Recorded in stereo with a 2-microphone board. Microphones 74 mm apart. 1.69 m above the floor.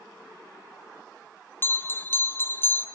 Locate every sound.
1.6 s a bell: 30° left (ahead or behind), 0.6 m